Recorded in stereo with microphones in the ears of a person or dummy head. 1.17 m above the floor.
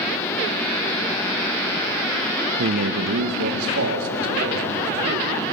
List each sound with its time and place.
2.6 s a man speaking: 50° right (ahead or behind), 0.8 m; by 5.3 s 80° right, 5 m